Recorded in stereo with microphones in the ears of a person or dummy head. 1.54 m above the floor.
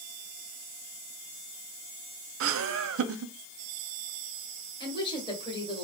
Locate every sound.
2.4 s laughter: 65° right (ahead or behind), 0.7 m
4.8 s a woman speaking: 20° left (ahead or behind), 1.7 m